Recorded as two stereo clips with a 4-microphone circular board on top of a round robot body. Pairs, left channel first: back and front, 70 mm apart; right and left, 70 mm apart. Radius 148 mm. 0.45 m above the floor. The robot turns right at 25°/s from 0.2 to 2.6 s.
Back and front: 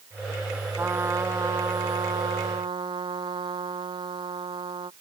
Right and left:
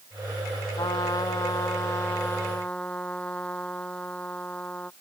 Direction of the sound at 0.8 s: 60° right.